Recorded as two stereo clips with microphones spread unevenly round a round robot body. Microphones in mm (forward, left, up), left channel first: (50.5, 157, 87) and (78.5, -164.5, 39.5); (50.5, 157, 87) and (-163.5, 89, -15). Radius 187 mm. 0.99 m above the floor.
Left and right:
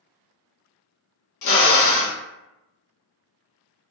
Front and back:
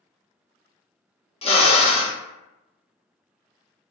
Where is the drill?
70° left, 0.7 m.